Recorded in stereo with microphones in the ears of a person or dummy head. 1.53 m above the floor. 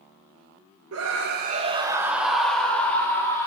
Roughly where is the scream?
Right.